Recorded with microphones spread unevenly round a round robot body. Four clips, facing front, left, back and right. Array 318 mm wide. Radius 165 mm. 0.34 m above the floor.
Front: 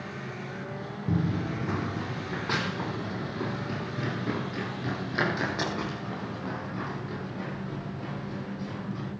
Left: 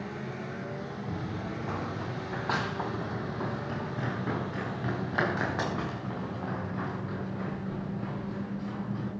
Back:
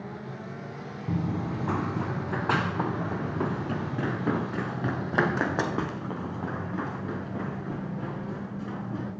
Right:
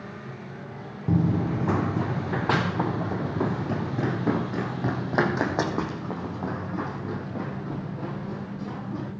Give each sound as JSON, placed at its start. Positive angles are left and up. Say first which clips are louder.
{"t": 1.1, "sound": "running footsteps", "louder": "right 15 dB, front 1 dB", "azimuth_deg": -85, "distance_m": 0.8}